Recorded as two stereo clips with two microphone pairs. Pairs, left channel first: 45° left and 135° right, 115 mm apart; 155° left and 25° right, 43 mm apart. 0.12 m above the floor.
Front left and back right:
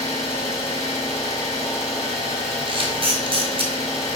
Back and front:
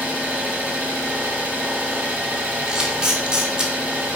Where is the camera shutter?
90° right, 1.2 m.